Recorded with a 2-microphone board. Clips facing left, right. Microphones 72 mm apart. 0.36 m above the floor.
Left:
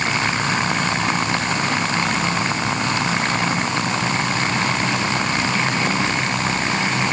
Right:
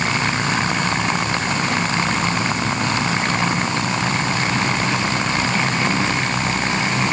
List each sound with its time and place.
Only background noise.